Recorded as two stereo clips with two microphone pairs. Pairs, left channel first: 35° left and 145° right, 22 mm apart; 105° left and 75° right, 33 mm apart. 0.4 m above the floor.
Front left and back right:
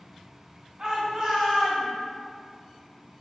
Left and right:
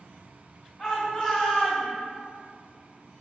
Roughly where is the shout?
Behind.